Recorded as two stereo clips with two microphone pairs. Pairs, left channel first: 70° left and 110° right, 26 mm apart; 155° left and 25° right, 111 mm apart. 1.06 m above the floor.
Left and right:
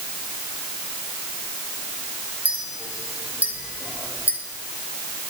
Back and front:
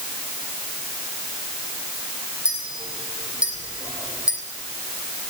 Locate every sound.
2.5 s a clink: 105° right, 3 m